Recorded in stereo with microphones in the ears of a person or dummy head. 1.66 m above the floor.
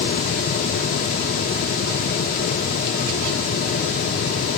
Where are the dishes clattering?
No dishes clattering in this recording.